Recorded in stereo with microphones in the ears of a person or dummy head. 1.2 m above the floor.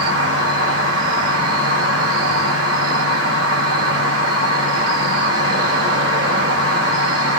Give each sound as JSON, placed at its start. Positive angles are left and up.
{"t": 0.0, "sound": "an insect", "side_deg": -75, "distance_m": 1.9}